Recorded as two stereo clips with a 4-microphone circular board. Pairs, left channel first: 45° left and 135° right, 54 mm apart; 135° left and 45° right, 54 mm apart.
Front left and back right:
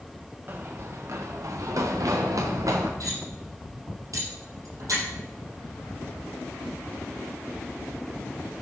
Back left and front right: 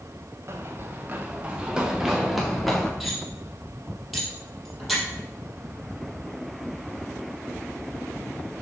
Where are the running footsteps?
85° right, 2 m; by 2.9 s 140° right, 3 m.